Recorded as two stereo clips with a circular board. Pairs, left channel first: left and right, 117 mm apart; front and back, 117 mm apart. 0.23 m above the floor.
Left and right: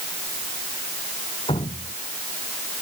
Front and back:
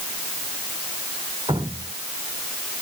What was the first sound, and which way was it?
Dripping, 130° left.